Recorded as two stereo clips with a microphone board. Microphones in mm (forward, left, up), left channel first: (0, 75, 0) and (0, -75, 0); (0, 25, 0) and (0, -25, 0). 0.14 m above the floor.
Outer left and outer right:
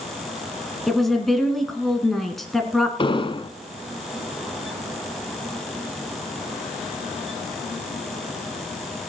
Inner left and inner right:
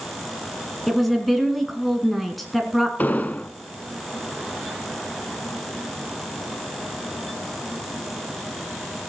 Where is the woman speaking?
Centre (ahead or behind), 1.7 m.